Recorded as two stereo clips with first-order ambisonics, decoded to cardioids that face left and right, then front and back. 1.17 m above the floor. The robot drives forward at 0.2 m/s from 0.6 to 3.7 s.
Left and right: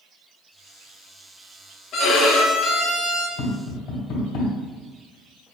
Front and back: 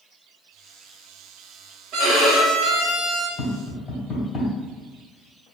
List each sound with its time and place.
1.9 s a violin: 140° left, 1.1 m; by 3.3 s 150° left, 1.4 m
3.4 s tapping: 80° left, 1.8 m